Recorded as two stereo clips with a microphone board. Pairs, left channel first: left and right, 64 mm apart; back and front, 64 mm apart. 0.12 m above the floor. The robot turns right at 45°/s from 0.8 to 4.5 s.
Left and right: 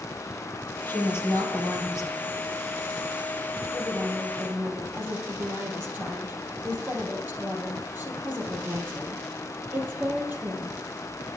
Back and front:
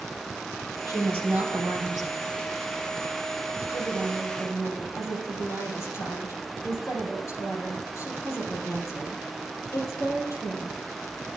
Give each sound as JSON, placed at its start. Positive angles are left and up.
{"t": 0.9, "sound": "a woman speaking", "azimuth_deg": 35, "distance_m": 3.0}
{"t": 3.7, "sound": "a woman speaking", "azimuth_deg": 180, "distance_m": 3.0}